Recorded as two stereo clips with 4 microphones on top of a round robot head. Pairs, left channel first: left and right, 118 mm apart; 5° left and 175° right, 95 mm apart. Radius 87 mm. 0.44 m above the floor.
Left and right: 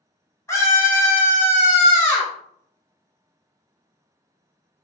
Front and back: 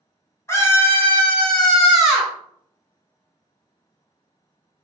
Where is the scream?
40° left, 1.6 m; by 2.3 s 115° left, 1.3 m.